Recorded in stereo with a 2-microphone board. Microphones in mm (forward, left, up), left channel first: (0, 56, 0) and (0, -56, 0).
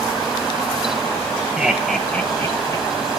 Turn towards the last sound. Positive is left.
turn(degrees=40)  # may be behind; listen again after turning